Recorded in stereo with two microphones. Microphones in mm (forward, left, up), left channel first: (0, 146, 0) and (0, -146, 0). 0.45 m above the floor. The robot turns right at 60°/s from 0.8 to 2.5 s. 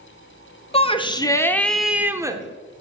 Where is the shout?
20° left (ahead or behind), 0.8 m; by 2.4 s 15° right (ahead or behind), 0.8 m.